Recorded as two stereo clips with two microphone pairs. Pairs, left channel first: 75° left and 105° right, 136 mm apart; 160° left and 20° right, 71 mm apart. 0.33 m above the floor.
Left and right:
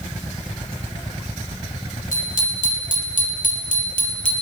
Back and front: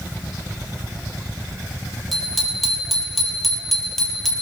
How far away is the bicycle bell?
About 7.5 m.